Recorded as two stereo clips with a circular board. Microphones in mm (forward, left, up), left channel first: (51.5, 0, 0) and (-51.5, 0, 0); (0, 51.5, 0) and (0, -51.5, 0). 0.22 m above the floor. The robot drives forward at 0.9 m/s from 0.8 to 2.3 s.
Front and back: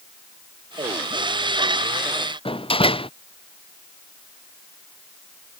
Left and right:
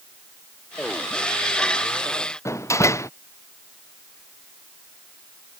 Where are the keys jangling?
No keys jangling in this recording.